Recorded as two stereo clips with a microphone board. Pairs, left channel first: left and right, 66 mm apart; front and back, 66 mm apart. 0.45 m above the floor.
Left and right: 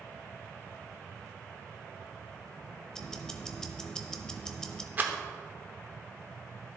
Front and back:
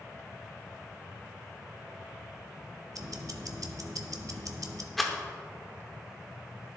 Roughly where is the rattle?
Right.